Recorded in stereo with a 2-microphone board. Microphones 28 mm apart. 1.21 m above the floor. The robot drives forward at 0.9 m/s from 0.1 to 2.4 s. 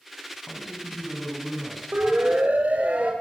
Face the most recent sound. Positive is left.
turn(degrees=-55)  # may be behind; listen again after turning